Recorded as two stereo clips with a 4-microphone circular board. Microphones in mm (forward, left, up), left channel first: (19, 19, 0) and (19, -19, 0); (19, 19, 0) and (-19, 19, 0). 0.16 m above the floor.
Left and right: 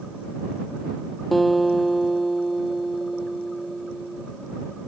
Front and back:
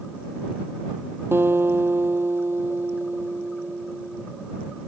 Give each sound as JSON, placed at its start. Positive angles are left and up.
{"t": 1.3, "sound": "a guitar", "azimuth_deg": 175}